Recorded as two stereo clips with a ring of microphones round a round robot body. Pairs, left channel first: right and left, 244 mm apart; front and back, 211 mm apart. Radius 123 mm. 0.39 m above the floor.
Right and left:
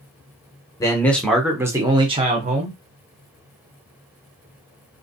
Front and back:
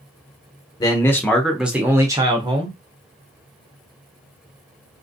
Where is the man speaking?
35° right, 0.8 m; by 2.8 s 130° left, 1.1 m.